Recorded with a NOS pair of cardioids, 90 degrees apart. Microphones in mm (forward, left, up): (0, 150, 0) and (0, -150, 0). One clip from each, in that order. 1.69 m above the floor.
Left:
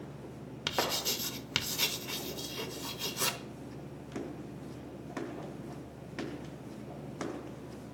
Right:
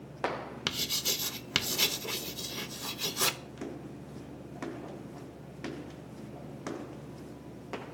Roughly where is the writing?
Ahead.